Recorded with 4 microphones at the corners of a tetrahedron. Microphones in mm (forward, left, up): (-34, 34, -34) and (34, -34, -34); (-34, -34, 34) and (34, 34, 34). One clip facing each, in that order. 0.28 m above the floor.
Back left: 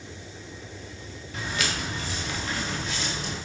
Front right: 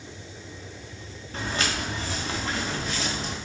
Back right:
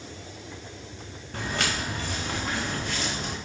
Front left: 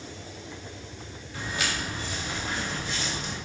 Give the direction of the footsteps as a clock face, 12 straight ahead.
3 o'clock.